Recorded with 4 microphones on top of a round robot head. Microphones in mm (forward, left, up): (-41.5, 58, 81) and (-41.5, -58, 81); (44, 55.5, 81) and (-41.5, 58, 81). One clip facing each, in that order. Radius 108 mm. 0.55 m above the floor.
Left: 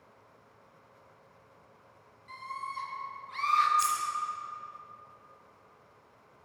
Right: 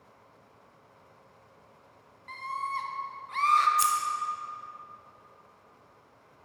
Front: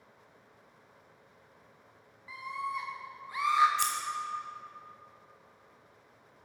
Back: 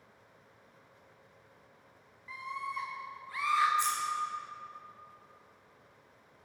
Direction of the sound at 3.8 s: 45° right.